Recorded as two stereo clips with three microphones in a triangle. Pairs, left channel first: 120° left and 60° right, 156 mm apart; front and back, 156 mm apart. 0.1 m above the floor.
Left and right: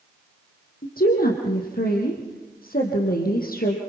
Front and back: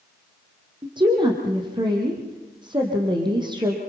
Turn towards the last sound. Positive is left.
turn(degrees=120)